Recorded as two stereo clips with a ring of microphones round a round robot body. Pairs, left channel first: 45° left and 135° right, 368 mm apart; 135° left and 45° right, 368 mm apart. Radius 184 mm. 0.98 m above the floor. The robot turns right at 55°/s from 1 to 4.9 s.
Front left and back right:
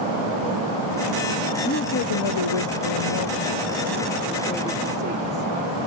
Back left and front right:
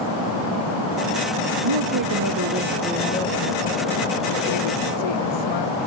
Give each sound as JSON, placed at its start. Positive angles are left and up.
{"t": 1.6, "sound": "a woman speaking", "azimuth_deg": -25}